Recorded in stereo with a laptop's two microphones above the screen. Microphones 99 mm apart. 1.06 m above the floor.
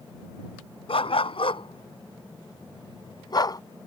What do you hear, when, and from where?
0.9 s a dog barking: 75° left (ahead or behind); by 3.6 s 40° left (ahead or behind)